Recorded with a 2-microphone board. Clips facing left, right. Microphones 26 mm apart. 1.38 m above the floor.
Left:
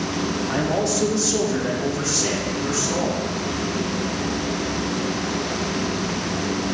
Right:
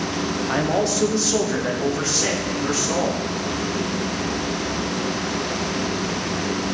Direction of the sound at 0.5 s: 25° right (ahead or behind).